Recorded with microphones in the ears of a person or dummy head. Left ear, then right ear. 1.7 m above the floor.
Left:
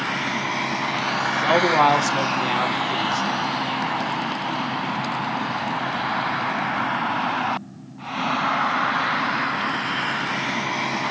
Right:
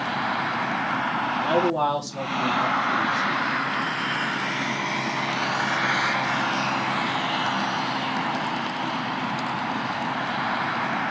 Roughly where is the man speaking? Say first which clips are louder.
Left 6 dB; left.